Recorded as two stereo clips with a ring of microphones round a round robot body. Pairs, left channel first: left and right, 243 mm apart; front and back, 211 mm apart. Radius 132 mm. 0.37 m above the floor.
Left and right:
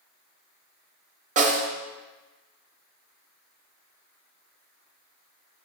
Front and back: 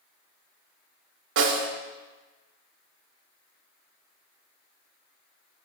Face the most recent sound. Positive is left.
turn(degrees=-150)